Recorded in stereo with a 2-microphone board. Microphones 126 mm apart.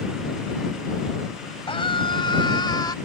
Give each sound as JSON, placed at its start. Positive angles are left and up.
{"t": 1.7, "sound": "a scream", "side_deg": 40}